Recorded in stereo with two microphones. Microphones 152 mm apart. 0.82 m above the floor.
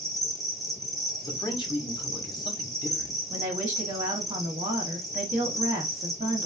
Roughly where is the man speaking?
Left.